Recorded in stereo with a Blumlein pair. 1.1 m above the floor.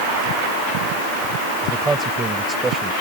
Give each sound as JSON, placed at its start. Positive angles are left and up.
{"t": 1.6, "sound": "a man speaking", "azimuth_deg": -15}